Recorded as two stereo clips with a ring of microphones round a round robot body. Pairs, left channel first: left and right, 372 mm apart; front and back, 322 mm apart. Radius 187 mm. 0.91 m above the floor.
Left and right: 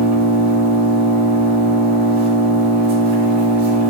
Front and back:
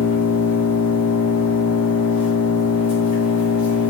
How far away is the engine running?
About 1.4 m.